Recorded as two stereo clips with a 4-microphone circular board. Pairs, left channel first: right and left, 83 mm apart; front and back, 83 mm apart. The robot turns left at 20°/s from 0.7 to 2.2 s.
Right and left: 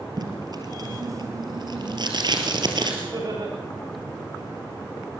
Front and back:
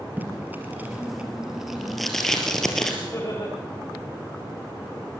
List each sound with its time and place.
0.2 s tape being pulled: 115° left, 3.5 m; by 2.9 s 85° left, 3.5 m
3.0 s laughter: 50° left, 8 m